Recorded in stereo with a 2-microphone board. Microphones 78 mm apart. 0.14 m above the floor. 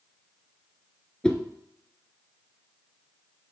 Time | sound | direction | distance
1.2 | a whoosh | 10° left (ahead or behind) | 1.0 m